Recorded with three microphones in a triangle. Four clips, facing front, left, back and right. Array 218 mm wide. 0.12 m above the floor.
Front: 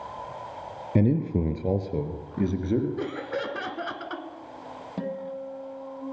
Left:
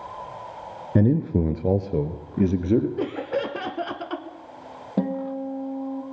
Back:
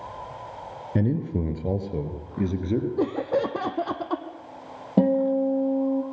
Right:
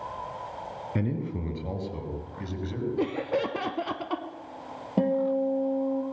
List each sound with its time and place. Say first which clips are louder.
0.9 s a man speaking: left 11 dB, front 2 dB; 75° left, 1.4 m; by 2.9 s 95° left, 3 m
3.0 s laughter: left 1 dB, back 7 dB; 175° left, 1.3 m
5.0 s a guitar: right 2 dB, back 13 dB; 170° left, 3 m